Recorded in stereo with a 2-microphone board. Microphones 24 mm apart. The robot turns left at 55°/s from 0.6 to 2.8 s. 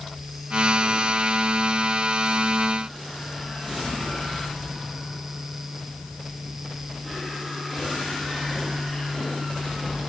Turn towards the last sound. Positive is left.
No sound to turn to.